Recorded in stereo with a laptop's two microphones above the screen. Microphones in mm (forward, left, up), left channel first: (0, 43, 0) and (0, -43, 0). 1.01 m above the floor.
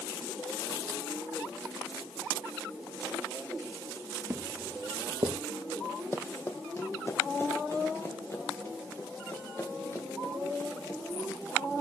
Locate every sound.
4.3 s footsteps: 35° right (ahead or behind), 1.2 m; by 5.4 s 65° right (ahead or behind), 2.5 m
6.1 s running footsteps: 30° left (ahead or behind), 1.4 m; by 11.8 s 25° left (ahead or behind), 5.5 m